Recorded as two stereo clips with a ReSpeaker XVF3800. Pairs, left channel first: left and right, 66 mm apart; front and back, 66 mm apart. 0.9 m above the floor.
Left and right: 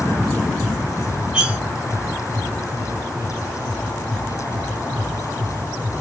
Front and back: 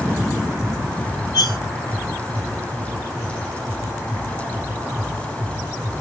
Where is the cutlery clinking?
15° right, 0.7 m.